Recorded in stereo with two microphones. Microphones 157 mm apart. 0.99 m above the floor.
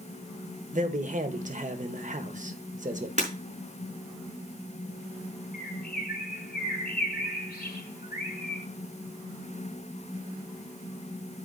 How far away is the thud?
I don't hear a thud.